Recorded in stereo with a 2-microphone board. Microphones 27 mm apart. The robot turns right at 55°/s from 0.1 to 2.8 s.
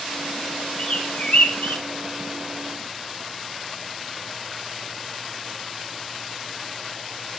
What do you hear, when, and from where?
0.8 s a bird: 40° left (ahead or behind), 3 m; by 1.8 s 85° left, 3 m